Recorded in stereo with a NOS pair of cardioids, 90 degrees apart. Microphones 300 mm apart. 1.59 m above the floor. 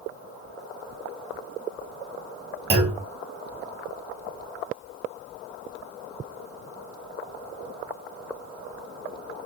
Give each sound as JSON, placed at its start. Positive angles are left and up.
{"t": 2.7, "sound": "a clunk", "azimuth_deg": -35, "distance_m": 2.0}